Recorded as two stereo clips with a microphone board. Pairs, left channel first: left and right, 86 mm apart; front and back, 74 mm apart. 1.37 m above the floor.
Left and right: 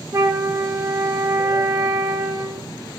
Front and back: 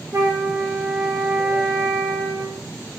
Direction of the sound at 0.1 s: 140° right.